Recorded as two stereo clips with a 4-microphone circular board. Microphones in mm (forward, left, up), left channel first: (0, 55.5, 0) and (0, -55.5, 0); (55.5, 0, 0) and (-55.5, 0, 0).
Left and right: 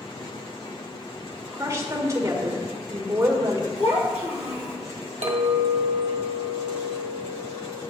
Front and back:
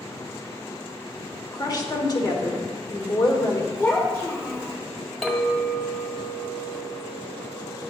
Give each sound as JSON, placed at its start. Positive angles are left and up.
{"t": 1.5, "sound": "a woman speaking", "azimuth_deg": -35, "distance_m": 1.2}
{"t": 3.8, "sound": "a child speaking", "azimuth_deg": 65, "distance_m": 2.5}
{"t": 5.2, "sound": "a clink", "azimuth_deg": -90, "distance_m": 1.3}